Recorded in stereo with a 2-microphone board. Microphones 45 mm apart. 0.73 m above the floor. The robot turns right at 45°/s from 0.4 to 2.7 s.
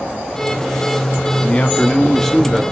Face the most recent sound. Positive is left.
turn(degrees=-175)